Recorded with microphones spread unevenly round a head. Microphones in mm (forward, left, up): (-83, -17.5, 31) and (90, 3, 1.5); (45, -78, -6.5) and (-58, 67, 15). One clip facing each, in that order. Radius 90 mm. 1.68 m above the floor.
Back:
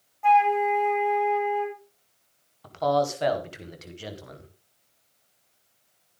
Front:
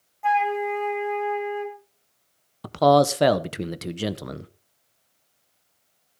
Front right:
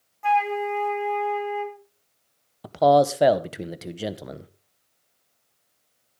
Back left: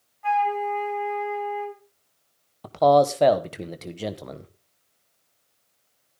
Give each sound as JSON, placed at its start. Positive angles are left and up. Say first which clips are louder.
{"t": 0.2, "sound": "a flute", "louder": "back 3 dB, front right 1 dB", "azimuth_deg": -80, "distance_m": 3.5}
{"t": 2.6, "sound": "a man speaking", "louder": "front 7 dB, even", "azimuth_deg": 30, "distance_m": 0.9}